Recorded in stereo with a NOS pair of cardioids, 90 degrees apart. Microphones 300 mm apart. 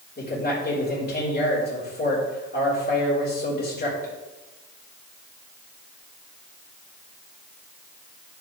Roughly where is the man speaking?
Ahead left.